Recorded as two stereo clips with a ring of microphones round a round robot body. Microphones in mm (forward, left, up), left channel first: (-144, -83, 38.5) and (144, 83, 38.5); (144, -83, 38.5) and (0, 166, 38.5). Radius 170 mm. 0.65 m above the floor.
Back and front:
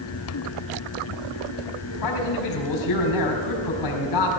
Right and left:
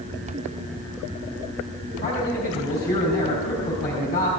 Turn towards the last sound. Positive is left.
turn(degrees=-120)